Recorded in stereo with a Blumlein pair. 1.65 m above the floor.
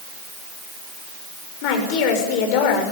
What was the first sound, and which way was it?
A woman speaking, 45° left.